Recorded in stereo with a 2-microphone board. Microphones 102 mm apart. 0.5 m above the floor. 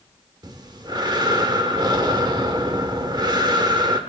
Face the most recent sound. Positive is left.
turn(degrees=-45)  # may be behind; listen again after turning